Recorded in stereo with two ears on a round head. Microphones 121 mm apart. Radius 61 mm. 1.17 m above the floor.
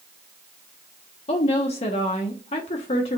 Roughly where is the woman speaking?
Left.